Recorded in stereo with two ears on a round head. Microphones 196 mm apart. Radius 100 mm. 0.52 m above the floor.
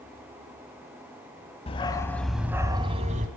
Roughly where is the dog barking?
Left.